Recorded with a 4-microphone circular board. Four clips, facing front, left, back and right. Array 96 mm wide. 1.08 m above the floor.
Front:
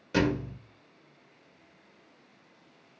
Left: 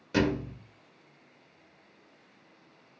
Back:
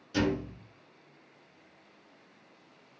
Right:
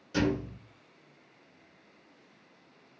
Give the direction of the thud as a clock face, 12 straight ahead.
11 o'clock.